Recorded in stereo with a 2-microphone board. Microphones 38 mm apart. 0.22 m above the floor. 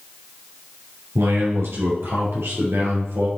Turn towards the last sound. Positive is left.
turn(degrees=-75)  # may be behind; listen again after turning